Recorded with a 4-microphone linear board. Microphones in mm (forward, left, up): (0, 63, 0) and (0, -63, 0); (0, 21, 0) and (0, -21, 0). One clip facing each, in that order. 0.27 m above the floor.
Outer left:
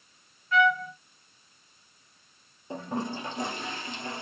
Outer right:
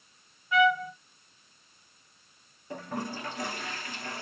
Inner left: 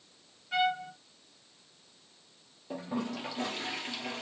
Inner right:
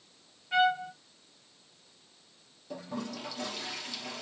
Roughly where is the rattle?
I don't hear a rattle.